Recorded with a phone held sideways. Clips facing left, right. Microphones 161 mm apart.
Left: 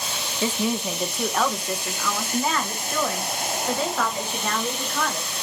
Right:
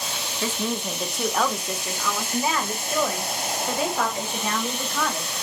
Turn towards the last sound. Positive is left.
turn(degrees=-15)  # may be behind; listen again after turning